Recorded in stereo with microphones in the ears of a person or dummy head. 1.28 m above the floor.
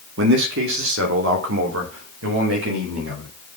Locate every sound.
0.2 s a man speaking: 70° right (ahead or behind), 2 m; by 3.3 s 75° right (ahead or behind), 5.5 m